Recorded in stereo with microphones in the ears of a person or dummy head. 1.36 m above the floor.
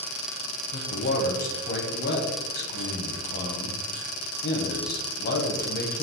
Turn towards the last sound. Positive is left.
turn(degrees=40)  # may be behind; listen again after turning